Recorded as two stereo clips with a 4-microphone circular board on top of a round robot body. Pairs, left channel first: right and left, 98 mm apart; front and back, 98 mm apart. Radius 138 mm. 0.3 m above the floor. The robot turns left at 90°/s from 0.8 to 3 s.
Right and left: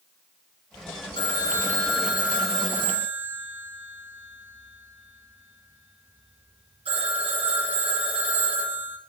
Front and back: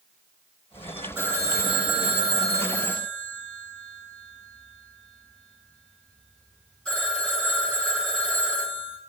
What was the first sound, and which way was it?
A phone ringing, 110° right.